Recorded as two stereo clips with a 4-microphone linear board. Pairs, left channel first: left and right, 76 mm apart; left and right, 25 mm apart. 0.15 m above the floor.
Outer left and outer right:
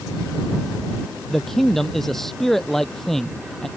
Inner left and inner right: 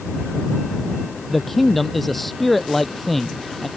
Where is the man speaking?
5° left (ahead or behind).